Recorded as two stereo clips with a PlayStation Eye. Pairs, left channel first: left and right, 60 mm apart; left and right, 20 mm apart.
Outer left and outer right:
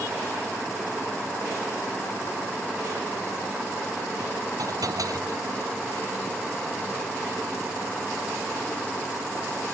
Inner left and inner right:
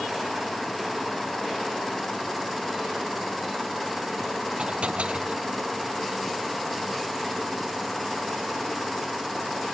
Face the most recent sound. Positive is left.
turn(degrees=-75)  # may be behind; listen again after turning